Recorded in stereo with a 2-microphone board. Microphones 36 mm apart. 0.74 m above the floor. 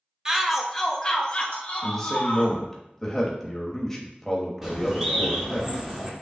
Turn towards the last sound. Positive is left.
turn(degrees=-20)  # may be behind; listen again after turning